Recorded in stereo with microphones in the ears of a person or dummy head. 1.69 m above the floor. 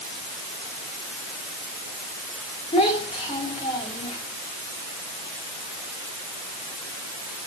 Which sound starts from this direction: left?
A child speaking, at 2.7 s.